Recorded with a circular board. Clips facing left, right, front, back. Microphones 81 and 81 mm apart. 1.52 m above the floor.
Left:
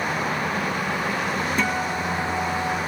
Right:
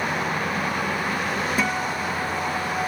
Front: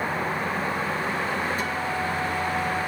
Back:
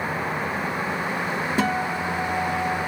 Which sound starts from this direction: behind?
A guitar, at 1.6 s.